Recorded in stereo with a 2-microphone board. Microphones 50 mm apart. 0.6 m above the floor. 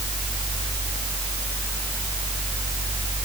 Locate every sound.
Only background noise.